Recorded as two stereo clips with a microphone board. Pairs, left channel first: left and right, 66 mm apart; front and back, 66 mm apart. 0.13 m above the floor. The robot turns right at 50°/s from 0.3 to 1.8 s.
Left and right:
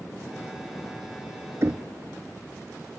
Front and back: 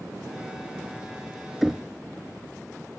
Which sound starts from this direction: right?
Knocking, at 1.6 s.